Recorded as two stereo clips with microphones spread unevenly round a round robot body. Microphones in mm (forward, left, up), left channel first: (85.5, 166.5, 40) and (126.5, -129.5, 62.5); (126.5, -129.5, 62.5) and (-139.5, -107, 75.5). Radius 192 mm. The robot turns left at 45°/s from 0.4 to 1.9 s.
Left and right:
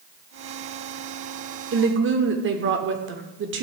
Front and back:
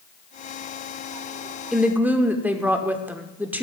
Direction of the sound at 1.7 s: 95° right.